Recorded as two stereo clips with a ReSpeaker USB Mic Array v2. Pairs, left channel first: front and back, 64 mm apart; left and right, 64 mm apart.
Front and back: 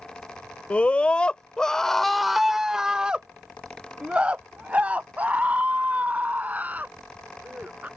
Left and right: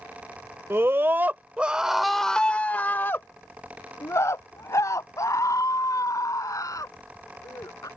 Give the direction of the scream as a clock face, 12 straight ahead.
2 o'clock.